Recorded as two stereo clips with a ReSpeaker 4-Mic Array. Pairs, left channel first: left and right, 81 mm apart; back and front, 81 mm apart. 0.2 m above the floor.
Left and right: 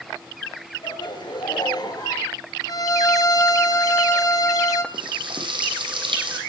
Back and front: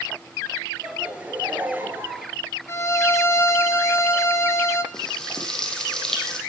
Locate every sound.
0.8 s laughter: 80° left, 3.5 m; by 2.3 s 60° left, 3.5 m
2.7 s a violin: 130° left, 1.8 m
4.9 s frying: 95° right, 5 m